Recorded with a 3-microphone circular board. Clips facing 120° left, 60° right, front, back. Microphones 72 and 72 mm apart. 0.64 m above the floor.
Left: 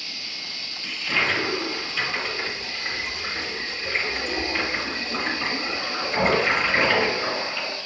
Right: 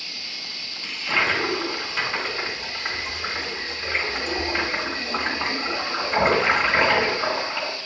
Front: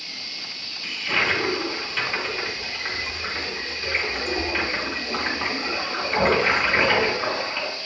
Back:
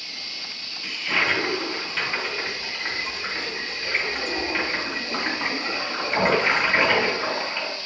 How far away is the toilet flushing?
About 2 m.